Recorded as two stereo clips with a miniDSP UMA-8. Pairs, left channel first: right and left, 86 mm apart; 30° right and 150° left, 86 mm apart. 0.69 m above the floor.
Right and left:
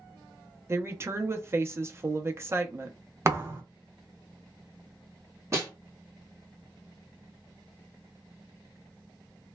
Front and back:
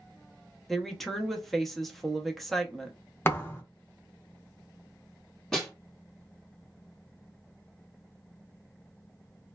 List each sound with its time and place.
0.7 s a woman speaking: 55° left, 0.6 m
3.2 s a thud: 35° left, 0.6 m
5.5 s a snare drum: 55° left, 1.3 m